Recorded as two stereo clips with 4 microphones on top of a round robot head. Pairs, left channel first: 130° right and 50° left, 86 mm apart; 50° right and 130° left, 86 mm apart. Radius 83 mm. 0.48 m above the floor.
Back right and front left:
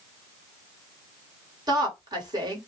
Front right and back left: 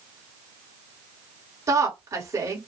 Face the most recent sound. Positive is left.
turn(degrees=80)